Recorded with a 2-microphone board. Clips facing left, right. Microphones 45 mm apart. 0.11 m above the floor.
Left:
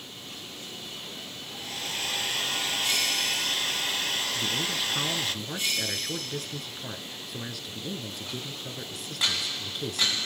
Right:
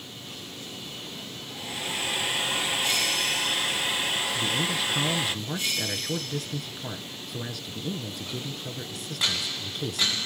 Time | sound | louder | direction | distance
1.5 | a hair dryer | right 2 dB | 15° right (ahead or behind) | 1.1 m
4.3 | a man speaking | right 2 dB | centre (ahead or behind) | 1.1 m